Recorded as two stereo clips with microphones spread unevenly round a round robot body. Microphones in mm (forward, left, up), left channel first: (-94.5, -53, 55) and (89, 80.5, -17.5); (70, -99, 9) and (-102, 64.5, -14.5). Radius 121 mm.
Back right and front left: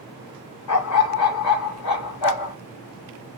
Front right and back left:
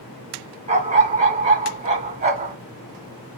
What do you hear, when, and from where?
0.7 s a dog barking: 160° right, 1.4 m